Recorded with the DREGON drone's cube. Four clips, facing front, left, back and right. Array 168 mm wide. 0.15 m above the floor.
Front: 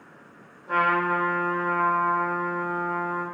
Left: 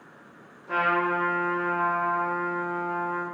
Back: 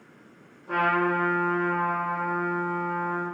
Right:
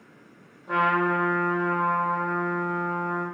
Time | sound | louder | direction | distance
0.7 | a trumpet | right 2 dB, front 1 dB | 85° right | 1.6 m